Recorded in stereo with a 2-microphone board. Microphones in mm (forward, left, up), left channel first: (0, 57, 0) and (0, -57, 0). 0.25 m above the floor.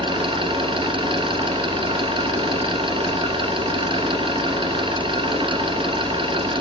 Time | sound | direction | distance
0.0 | an engine running | 50° right (ahead or behind) | 2 m